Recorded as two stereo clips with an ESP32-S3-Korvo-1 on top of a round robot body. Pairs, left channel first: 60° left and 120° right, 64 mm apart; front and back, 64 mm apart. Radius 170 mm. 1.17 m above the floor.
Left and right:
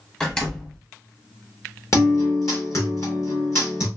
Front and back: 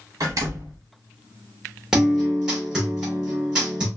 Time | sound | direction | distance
0.2 | a door slam | 135° left | 0.6 m
1.9 | a guitar | 100° left | 0.5 m